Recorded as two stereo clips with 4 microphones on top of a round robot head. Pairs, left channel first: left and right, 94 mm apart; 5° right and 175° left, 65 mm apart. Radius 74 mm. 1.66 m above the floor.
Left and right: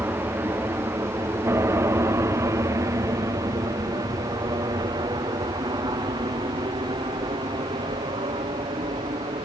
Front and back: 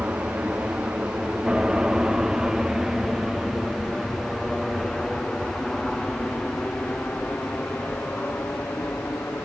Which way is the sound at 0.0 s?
135° right.